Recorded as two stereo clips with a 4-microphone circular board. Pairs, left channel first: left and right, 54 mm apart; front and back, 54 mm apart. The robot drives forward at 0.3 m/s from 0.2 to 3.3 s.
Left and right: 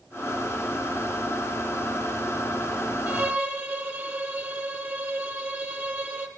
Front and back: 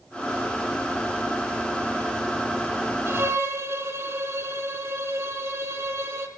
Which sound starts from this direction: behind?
A violin, at 3.1 s.